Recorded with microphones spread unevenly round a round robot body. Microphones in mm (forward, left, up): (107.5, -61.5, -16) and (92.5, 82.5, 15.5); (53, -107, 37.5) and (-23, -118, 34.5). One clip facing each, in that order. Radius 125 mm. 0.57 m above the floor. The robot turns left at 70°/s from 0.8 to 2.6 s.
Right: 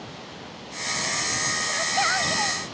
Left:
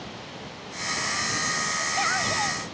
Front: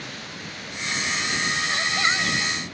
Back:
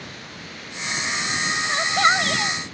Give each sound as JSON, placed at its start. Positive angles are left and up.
{"t": 1.7, "sound": "a shout", "azimuth_deg": -115}